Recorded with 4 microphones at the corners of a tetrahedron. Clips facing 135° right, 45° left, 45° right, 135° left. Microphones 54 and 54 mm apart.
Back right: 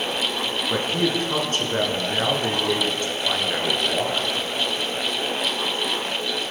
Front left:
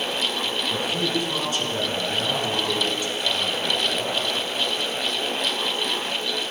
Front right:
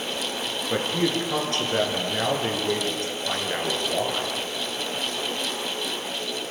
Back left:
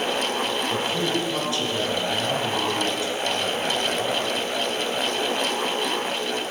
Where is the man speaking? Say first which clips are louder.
Back right 4 dB, even; 90° right, 6 m.